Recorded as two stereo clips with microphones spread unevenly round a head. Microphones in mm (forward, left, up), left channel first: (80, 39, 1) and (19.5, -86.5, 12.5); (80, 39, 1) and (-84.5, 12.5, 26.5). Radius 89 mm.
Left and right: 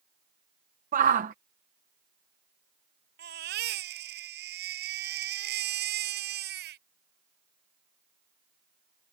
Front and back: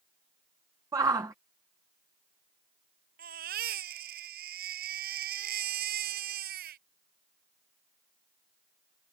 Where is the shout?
95° right.